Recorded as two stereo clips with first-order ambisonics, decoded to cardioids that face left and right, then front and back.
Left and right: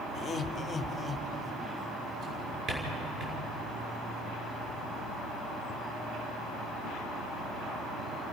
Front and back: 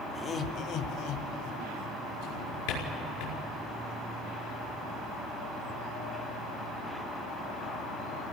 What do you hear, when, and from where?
0.1 s laughter: 70° left, 1.0 m; by 1.9 s 5° left, 3 m
2.2 s a drawer: 25° right, 4.5 m